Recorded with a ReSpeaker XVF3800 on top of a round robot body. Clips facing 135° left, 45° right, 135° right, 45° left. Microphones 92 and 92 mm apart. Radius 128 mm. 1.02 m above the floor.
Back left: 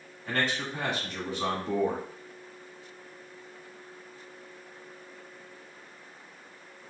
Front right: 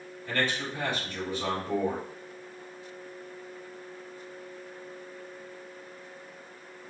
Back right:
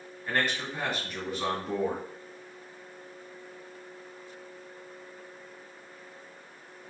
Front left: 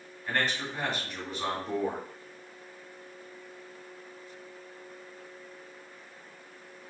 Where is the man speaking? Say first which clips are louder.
Even, back right 1 dB; 140° left, 2.5 m.